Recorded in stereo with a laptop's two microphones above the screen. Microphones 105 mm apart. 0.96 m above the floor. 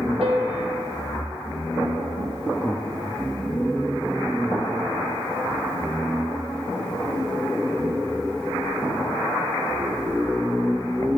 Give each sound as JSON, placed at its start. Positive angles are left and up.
{"t": 0.2, "sound": "a piano", "side_deg": -70, "distance_m": 4.5}